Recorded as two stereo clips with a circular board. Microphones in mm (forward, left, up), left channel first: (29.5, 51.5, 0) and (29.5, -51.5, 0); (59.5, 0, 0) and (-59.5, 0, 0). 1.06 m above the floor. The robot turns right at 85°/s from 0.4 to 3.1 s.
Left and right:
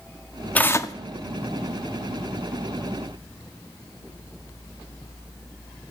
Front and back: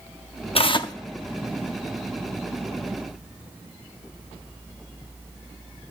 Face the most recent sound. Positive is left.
turn(degrees=-125)